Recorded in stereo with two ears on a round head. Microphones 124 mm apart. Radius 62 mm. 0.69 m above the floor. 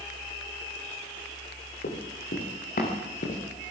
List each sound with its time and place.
1.8 s running footsteps: 65° left (ahead or behind), 8 m; by 3.4 s 60° left (ahead or behind), 7 m